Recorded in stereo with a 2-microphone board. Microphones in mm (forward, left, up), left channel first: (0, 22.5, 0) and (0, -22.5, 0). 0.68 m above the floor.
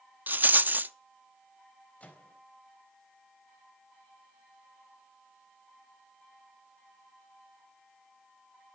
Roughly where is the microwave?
Left.